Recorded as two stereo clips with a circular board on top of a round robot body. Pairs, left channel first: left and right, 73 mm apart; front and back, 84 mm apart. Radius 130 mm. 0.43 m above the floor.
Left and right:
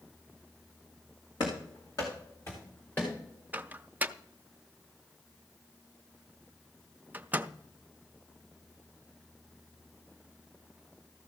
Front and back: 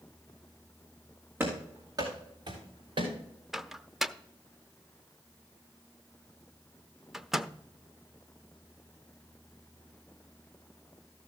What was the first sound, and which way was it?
Running footsteps, 115° left.